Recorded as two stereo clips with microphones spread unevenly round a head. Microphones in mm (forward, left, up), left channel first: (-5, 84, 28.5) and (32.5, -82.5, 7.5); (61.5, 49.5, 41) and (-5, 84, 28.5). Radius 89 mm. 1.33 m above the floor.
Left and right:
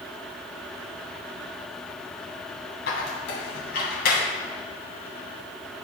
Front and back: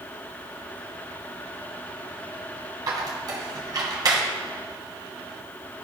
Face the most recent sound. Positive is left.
turn(degrees=120)